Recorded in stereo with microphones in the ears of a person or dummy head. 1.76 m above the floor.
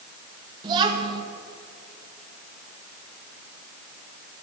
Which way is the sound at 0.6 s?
25° right (ahead or behind).